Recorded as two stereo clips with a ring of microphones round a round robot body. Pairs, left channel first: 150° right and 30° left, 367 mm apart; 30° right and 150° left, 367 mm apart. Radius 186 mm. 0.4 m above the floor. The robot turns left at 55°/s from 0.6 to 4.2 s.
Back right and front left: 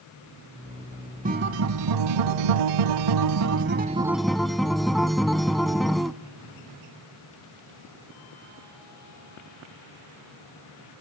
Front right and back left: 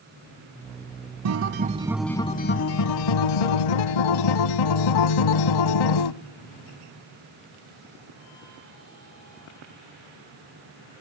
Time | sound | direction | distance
1.2 | a guitar | 100° left | 0.6 m